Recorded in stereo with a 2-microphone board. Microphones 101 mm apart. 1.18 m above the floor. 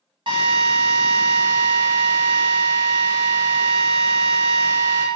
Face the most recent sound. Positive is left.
turn(degrees=-55)  # may be behind; listen again after turning